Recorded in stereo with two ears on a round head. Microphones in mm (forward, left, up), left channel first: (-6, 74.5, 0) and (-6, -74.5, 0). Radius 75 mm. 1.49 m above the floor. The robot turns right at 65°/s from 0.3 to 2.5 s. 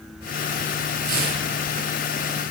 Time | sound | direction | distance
1.1 | tearing paper | 55° right (ahead or behind) | 7 m